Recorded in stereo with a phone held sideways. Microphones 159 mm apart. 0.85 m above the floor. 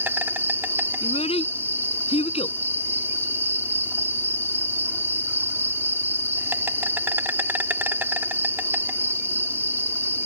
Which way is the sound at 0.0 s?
15° right (ahead or behind).